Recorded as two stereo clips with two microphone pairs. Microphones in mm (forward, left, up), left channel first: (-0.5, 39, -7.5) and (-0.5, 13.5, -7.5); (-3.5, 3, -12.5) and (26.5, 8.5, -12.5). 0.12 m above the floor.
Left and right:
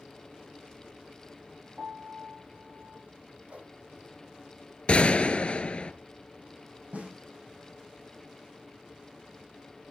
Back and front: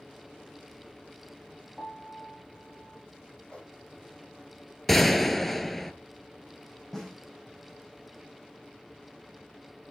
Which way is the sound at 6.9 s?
85° right.